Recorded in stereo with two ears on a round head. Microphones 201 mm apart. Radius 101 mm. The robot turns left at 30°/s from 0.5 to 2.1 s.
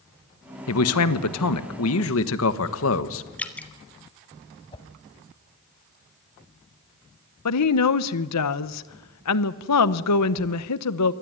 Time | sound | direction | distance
0.7 | a man speaking | 105° left | 1.4 m
3.4 | dripping | 5° left (ahead or behind) | 1.4 m
4.7 | a whoosh | 25° left (ahead or behind) | 1.3 m
7.5 | a woman speaking | 75° left (ahead or behind) | 0.9 m